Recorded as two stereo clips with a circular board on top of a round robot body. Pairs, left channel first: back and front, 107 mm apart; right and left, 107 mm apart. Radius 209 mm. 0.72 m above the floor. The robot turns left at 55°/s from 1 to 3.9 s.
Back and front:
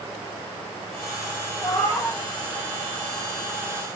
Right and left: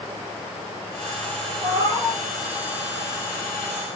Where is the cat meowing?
120° left, 2.5 m; by 2.2 s 90° left, 2.5 m.